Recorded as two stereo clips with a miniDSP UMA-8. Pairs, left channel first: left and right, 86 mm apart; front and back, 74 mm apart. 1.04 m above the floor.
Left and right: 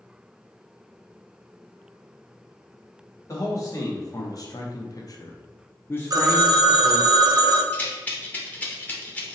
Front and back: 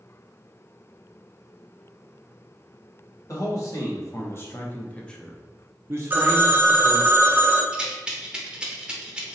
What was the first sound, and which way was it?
A man speaking, 40° left.